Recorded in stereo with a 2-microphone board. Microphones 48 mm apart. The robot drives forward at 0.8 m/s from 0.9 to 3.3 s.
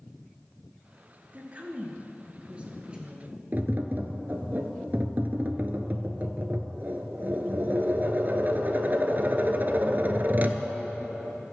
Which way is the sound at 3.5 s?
45° right (ahead or behind).